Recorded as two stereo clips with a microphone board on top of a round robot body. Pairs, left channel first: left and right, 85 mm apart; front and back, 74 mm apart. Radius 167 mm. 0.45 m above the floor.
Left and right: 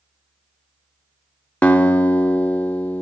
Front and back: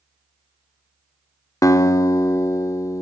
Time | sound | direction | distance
1.6 | a guitar | 20° left | 0.8 m